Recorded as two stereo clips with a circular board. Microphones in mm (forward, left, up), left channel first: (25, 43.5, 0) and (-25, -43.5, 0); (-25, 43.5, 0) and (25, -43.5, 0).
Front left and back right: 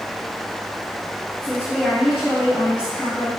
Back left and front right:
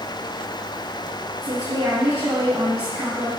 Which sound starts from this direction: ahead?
A woman speaking, at 1.4 s.